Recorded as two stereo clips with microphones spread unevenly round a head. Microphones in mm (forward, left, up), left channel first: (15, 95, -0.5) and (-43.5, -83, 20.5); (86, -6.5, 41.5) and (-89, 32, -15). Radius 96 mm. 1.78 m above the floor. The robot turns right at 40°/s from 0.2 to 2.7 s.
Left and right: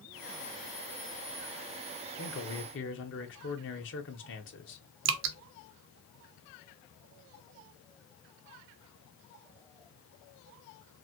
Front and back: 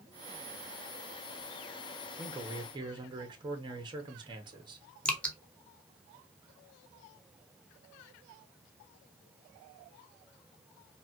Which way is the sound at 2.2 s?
75° left.